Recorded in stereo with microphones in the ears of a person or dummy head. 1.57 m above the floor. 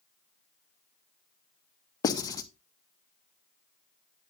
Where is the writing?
15° left (ahead or behind), 0.7 m.